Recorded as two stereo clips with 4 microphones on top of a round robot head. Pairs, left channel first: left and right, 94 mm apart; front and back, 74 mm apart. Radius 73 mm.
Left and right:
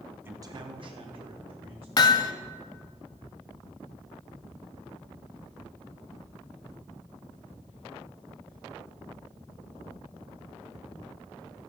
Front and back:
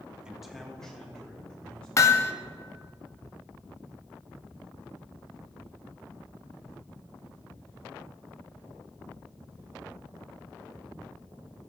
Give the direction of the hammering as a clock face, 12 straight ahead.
10 o'clock.